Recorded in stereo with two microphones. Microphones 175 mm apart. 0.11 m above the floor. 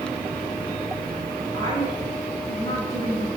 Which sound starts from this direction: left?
A woman speaking, at 1.5 s.